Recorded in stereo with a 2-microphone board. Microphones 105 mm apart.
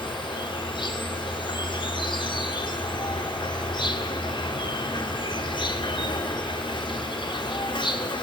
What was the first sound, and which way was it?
An insect, 50° left (ahead or behind).